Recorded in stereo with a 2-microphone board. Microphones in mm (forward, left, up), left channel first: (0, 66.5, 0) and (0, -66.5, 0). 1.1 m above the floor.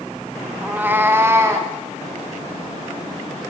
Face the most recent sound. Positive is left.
turn(degrees=-20)  # may be behind; listen again after turning